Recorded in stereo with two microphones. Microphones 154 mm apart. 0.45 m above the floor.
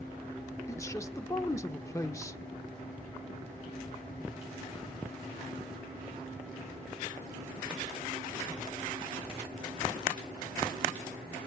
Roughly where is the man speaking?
Centre.